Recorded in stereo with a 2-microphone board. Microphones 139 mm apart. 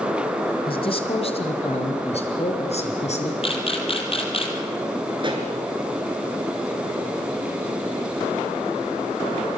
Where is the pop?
35° right (ahead or behind), 3.5 m.